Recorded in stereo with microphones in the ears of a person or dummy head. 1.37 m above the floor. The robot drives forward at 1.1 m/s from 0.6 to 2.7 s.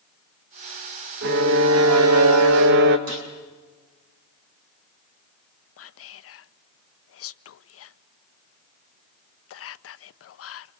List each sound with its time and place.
1.2 s a violin: 60° right (ahead or behind), 1.8 m; by 3.0 s 65° right (ahead or behind), 1.7 m
3.1 s a gunshot: 85° right, 6.5 m
5.8 s whispering: 65° left (ahead or behind), 0.9 m